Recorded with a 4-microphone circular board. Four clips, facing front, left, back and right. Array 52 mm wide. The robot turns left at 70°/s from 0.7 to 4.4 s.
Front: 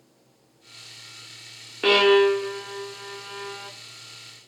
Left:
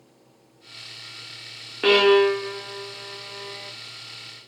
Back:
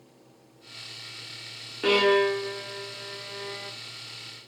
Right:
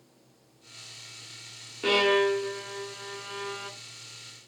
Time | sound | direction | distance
1.8 | a violin | 65° left | 0.6 m